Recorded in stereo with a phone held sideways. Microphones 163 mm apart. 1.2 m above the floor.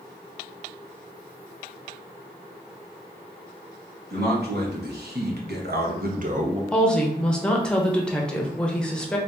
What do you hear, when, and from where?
4.1 s a man speaking: 75° right (ahead or behind), 1.5 m; by 6.6 s 35° right (ahead or behind), 0.6 m
6.7 s a woman speaking: 5° left (ahead or behind), 0.8 m